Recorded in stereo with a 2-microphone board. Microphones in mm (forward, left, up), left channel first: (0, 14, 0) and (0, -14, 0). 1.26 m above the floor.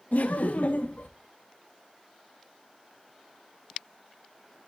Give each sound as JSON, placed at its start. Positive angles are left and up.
{"t": 0.1, "sound": "laughter", "side_deg": 75, "distance_m": 0.7}